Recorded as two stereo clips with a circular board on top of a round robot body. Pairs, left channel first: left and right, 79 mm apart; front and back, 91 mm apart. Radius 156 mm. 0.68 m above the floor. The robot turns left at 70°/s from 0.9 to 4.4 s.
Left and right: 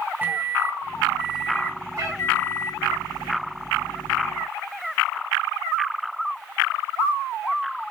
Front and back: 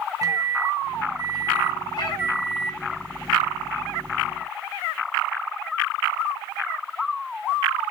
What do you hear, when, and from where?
0.2 s a microwave: 150° right, 0.9 m; by 2.8 s 80° left, 0.9 m
2.0 s a cat meowing: 40° right, 1.6 m; by 2.2 s 55° right, 1.6 m